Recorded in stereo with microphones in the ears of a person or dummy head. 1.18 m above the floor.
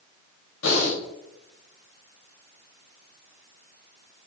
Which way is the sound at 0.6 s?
75° left (ahead or behind).